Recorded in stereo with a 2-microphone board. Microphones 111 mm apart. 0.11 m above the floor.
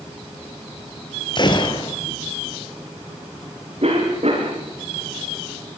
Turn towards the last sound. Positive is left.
turn(degrees=-65)  # may be behind; listen again after turning